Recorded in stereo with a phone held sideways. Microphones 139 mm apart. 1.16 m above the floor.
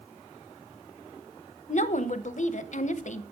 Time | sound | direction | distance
1.7 | a woman speaking | 60° left (ahead or behind) | 0.8 m